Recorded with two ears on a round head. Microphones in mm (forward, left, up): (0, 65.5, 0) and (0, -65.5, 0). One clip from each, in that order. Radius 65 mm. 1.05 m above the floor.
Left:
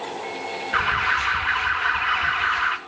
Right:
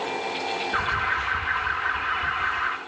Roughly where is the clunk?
I don't hear a clunk.